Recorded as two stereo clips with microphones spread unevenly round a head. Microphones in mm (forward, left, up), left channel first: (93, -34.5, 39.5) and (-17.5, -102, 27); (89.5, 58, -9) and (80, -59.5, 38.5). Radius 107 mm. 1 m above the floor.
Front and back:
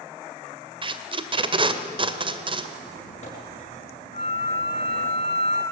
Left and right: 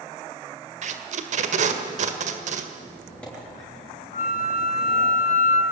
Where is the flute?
95° left, 3 m.